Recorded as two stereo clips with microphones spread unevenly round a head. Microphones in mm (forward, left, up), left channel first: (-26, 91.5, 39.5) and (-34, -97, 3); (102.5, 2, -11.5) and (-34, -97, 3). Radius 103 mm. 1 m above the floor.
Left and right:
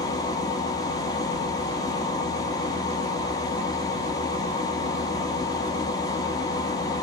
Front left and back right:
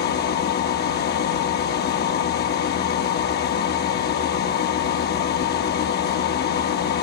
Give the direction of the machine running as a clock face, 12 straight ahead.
12 o'clock.